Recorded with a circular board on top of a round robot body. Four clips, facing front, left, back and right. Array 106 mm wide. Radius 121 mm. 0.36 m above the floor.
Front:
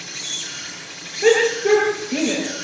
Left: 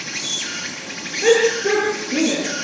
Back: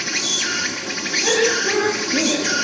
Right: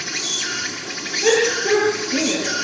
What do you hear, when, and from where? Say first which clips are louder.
0.0 s an insect: right 2 dB, back 10 dB; 175° left, 2 m
1.2 s a shout: left 2 dB, front 4 dB; 45° left, 8.5 m